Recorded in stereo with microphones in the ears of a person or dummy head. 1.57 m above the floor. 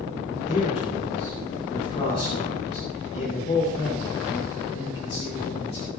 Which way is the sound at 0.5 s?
25° left (ahead or behind).